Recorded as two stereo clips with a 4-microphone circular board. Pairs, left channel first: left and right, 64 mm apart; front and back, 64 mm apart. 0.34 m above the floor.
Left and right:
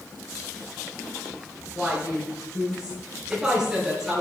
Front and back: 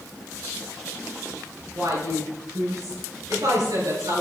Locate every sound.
1.8 s a woman speaking: 170° right, 5 m